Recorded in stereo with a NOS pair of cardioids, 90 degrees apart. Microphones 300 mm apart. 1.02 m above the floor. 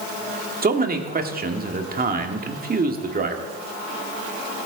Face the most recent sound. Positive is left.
turn(degrees=-30)